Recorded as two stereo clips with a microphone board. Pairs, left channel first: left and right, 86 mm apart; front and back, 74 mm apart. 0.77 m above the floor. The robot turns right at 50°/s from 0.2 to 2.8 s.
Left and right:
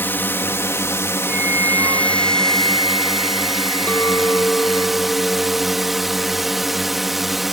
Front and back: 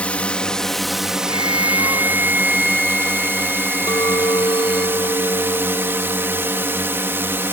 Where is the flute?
165° right; by 4.9 s 85° right.